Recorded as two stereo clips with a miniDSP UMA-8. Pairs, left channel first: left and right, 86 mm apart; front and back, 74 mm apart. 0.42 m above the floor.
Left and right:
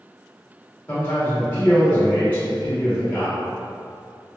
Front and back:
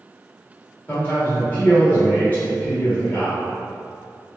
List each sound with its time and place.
0.9 s a man speaking: 40° left, 0.9 m